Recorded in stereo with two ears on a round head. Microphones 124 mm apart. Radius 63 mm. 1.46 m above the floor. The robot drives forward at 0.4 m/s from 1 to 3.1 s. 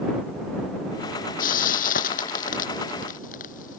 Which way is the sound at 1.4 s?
70° left (ahead or behind).